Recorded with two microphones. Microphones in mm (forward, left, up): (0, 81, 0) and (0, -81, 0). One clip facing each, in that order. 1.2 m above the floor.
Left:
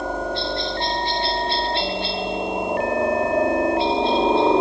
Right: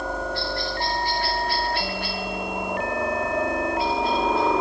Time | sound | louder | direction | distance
0.0 | a helicopter | left 3 dB | 20° left (ahead or behind) | ?